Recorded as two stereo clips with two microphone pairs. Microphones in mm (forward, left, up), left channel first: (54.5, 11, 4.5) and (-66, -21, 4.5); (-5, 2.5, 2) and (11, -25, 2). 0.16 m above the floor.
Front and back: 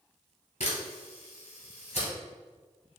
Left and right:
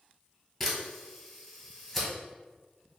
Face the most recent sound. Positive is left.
turn(degrees=30)